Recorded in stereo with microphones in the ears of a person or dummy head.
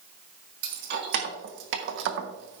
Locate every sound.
0.6 s keys jangling: 55° right (ahead or behind), 1.9 m; by 2.6 s 60° right (ahead or behind), 1.0 m